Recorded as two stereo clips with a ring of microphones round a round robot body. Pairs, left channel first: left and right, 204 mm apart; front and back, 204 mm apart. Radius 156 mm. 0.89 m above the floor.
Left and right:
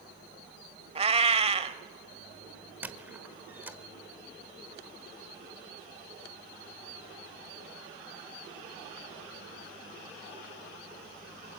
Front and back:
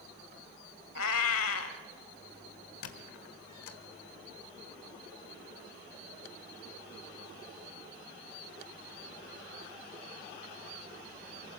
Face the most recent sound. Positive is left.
turn(degrees=-10)